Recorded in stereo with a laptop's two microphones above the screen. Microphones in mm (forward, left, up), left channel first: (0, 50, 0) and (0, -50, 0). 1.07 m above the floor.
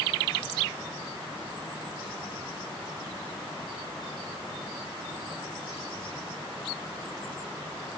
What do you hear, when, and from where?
Only background noise.